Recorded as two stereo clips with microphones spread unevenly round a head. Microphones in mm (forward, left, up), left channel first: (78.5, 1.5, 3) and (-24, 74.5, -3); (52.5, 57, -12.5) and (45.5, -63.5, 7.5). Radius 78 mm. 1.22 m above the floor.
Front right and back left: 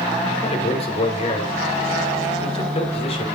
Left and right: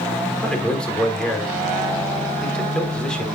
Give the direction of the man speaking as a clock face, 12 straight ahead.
12 o'clock.